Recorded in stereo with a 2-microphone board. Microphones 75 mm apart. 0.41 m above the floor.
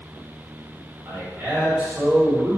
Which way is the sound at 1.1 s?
30° right (ahead or behind).